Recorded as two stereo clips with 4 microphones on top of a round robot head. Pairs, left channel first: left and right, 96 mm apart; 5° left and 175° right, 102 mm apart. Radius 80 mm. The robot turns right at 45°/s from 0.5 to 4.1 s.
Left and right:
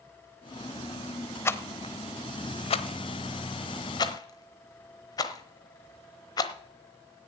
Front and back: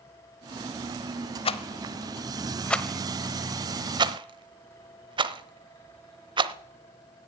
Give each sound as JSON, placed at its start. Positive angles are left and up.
{"t": 1.4, "sound": "a rattle", "azimuth_deg": 25, "distance_m": 0.9}